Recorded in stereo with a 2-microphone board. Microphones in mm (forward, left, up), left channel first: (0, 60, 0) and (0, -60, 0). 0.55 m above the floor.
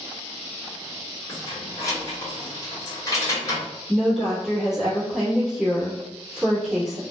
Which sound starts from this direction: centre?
A woman speaking, at 3.9 s.